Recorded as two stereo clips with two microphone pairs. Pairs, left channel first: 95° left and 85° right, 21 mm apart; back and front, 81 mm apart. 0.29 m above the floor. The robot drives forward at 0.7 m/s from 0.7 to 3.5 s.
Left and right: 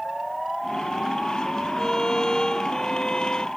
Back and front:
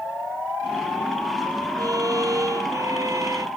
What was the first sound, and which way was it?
A violin, 40° left.